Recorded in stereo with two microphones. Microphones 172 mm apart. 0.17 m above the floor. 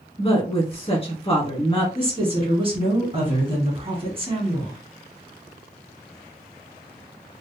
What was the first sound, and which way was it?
A woman speaking, 35° left (ahead or behind).